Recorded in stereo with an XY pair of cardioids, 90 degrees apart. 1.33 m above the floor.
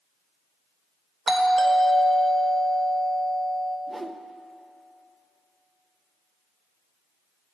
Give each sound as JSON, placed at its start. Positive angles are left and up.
{"t": 1.3, "sound": "a doorbell", "azimuth_deg": -35, "distance_m": 1.2}
{"t": 3.9, "sound": "a whoosh", "azimuth_deg": -25, "distance_m": 0.6}